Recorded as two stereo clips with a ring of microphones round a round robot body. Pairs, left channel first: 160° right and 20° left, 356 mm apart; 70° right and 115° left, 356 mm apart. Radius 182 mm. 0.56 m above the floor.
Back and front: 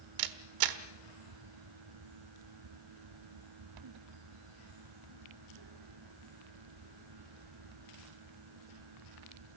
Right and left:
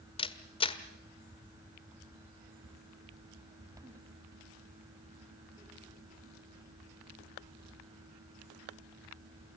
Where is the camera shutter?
5° left, 1.3 m.